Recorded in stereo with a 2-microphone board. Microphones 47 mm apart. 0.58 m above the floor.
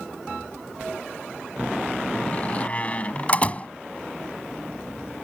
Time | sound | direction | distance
2.1 | a door slam | 30° left (ahead or behind) | ?